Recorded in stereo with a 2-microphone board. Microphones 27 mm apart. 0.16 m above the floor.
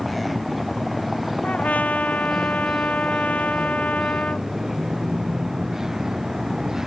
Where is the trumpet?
60° left (ahead or behind).